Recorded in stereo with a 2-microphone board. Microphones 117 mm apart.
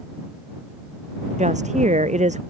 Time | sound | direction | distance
1.4 | a woman speaking | 85° right | ?